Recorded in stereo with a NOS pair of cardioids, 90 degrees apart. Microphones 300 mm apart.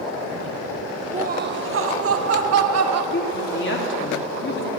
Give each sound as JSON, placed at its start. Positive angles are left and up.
{"t": 1.1, "sound": "laughter", "azimuth_deg": -20, "distance_m": 0.6}
{"t": 3.1, "sound": "a woman speaking", "azimuth_deg": 40, "distance_m": 3.0}